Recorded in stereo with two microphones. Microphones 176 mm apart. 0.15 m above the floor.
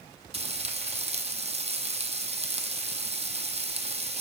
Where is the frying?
40° right (ahead or behind), 0.9 m.